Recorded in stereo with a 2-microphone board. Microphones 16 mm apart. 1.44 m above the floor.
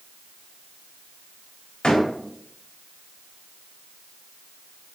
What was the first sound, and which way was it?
A door slam, 65° left (ahead or behind).